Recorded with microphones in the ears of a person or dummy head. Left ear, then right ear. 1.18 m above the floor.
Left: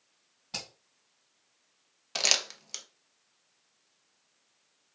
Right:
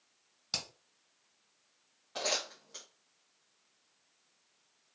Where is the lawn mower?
I don't hear a lawn mower.